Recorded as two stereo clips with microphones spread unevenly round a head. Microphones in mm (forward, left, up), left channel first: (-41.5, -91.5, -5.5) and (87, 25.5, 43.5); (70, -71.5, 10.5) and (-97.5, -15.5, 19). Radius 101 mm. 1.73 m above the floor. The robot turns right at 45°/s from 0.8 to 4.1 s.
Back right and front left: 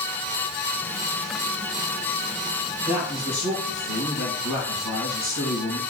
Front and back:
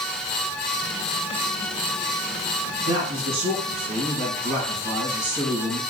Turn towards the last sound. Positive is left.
turn(degrees=-150)